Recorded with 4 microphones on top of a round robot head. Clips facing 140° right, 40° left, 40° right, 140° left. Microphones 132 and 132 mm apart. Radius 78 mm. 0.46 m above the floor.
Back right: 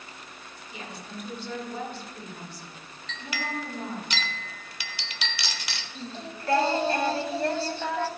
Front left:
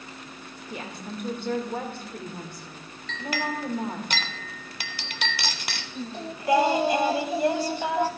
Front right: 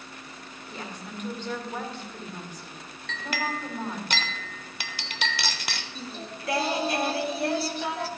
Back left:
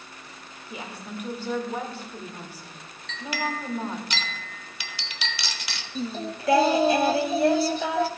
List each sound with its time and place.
0.7 s a woman speaking: 60° left, 1.6 m
3.1 s a clink: straight ahead, 0.8 m
6.0 s singing: 120° left, 0.5 m